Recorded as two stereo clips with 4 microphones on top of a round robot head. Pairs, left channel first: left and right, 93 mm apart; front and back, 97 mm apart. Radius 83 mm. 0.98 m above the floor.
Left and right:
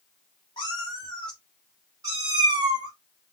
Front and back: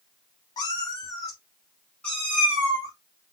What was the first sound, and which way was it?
A cat meowing, 35° left.